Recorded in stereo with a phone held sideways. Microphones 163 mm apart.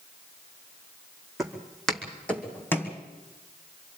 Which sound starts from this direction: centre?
Footsteps, at 1.4 s.